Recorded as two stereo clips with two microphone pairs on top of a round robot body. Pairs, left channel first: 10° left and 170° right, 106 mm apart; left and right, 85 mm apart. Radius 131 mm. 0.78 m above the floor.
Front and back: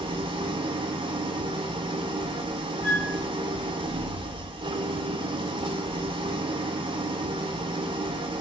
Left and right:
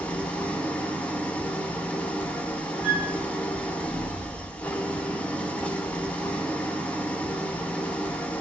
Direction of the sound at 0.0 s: 165° left.